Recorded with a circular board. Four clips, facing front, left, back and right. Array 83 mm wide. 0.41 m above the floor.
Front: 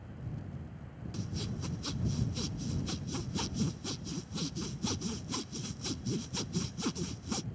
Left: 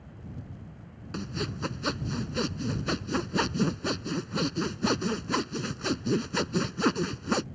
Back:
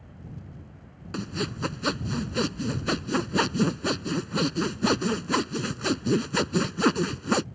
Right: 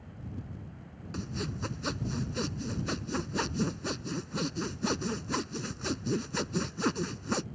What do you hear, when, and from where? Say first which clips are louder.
1.1 s sawing: left 3 dB, back 10 dB; 165° left